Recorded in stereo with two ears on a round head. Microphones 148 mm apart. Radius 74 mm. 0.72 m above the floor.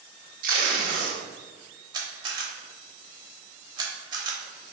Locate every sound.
0.4 s tape being pulled: 55° right (ahead or behind), 0.9 m
1.9 s a camera shutter: 25° right (ahead or behind), 0.8 m